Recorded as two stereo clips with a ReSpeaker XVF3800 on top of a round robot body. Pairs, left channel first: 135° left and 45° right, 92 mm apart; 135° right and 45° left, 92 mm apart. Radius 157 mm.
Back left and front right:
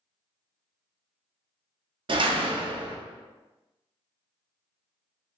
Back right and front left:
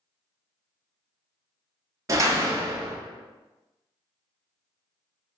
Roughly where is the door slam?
Ahead.